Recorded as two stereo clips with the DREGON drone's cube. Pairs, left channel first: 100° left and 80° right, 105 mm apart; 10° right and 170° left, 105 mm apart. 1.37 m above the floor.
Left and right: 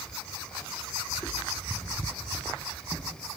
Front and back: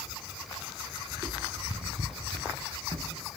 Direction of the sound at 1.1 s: 160° left.